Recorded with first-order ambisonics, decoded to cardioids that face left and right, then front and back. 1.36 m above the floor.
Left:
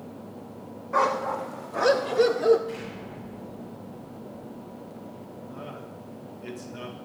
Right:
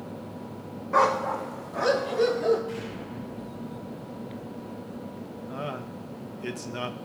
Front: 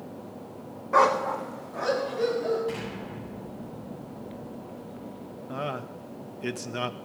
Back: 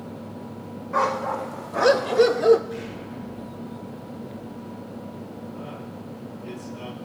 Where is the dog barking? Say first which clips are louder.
Right 2 dB, front 2 dB; 25° right, 0.8 m; by 2.6 s 160° left, 1.6 m.